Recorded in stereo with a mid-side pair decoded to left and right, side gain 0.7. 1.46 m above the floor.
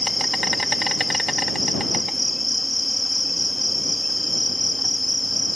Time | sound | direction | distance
0.0 | an insect | 5° left | ?